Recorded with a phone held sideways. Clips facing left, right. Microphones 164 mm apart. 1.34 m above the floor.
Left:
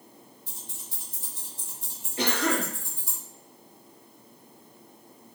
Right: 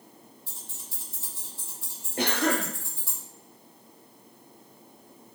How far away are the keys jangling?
About 0.9 m.